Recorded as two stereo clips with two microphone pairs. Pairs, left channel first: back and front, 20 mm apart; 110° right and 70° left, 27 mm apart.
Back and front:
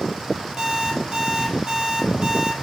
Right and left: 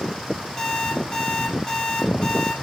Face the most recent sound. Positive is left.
turn(degrees=-50)